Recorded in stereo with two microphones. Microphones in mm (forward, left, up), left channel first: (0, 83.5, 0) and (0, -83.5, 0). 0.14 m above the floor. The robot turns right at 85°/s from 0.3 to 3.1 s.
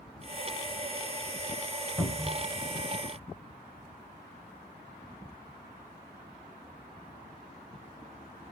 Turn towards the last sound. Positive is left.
turn(degrees=-90)